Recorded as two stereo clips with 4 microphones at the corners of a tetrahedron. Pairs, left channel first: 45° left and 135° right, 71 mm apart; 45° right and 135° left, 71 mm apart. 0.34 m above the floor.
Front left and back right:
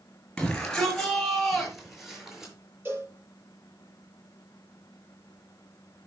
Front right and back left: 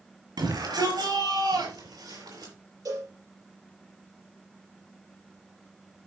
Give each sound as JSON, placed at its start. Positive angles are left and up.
{"t": 0.4, "sound": "a shout", "azimuth_deg": 125, "distance_m": 5.0}
{"t": 2.9, "sound": "a cowbell", "azimuth_deg": 165, "distance_m": 6.0}